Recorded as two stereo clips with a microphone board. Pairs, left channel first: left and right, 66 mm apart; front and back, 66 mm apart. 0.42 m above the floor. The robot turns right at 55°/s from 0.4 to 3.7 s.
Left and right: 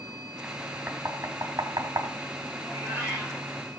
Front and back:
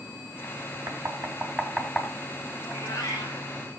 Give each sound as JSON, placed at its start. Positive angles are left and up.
{"t": 0.9, "sound": "knocking", "azimuth_deg": -145, "distance_m": 3.0}
{"t": 2.6, "sound": "a cat meowing", "azimuth_deg": -60, "distance_m": 8.5}